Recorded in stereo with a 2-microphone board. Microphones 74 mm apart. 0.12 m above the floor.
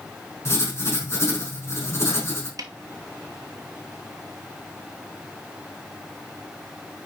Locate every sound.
0.5 s writing: 40° left (ahead or behind), 4 m
2.6 s a snare drum: 55° right (ahead or behind), 0.8 m